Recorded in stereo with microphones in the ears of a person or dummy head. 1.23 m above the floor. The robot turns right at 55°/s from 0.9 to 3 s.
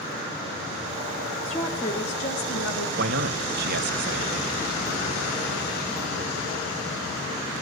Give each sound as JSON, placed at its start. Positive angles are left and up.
{"t": 1.4, "sound": "a woman speaking", "azimuth_deg": 5, "distance_m": 2.5}
{"t": 3.0, "sound": "a man speaking", "side_deg": -50, "distance_m": 1.9}